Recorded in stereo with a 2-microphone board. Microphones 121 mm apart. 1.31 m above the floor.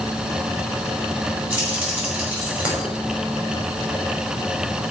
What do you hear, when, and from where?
1.5 s keys jangling: 10° right (ahead or behind), 5.5 m